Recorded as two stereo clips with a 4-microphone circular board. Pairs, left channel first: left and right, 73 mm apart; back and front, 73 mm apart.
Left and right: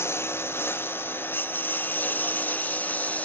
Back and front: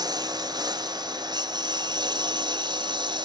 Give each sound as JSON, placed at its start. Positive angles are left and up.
{"t": 0.0, "sound": "a lawn mower", "azimuth_deg": 35}